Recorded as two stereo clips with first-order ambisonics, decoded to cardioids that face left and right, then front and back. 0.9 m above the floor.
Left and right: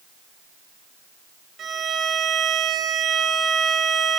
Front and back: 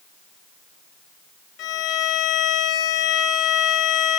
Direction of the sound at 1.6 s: 30° right.